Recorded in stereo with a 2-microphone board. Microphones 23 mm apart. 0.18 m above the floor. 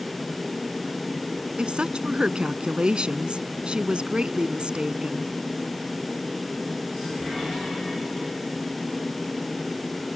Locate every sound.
1.6 s a woman speaking: 45° right (ahead or behind)